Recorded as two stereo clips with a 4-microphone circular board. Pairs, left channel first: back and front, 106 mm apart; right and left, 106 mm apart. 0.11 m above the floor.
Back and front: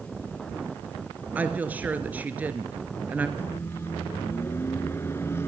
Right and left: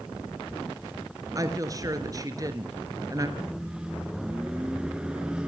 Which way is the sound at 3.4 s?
160° left.